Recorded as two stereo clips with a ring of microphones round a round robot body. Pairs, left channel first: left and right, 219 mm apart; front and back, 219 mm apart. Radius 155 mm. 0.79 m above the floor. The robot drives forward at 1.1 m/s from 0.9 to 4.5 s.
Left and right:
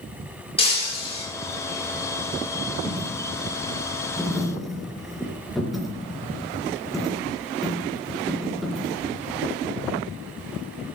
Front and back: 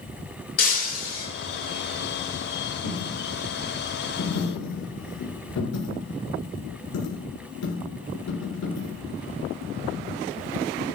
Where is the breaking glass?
25° left, 7 m.